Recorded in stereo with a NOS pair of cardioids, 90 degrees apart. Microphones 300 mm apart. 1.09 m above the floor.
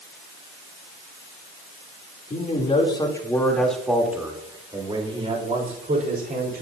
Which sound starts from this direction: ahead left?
A man speaking, at 2.3 s.